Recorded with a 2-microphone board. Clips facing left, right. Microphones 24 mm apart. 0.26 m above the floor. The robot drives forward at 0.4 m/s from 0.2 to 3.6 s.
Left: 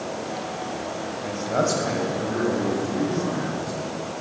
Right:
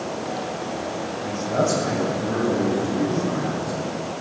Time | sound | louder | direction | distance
1.2 | a man speaking | right 1 dB | 15° left (ahead or behind) | 1.3 m